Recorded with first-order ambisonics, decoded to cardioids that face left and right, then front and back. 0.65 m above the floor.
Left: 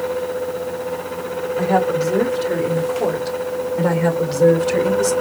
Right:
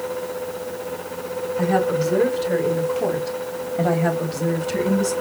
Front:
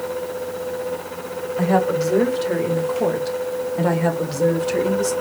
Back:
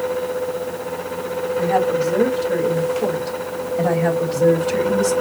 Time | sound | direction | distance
1.6 | a woman speaking | 35° left | 3.5 m